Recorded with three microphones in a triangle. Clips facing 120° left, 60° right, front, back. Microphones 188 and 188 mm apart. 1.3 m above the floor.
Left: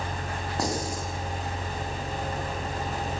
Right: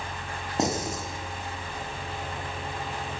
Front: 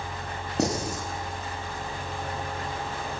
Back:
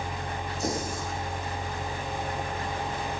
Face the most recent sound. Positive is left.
turn(degrees=10)